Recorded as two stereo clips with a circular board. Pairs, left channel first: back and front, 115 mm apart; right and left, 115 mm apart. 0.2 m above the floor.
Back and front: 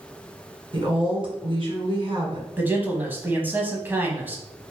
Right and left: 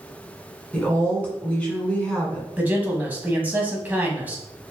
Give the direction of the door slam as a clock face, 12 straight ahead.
No door slam in this recording.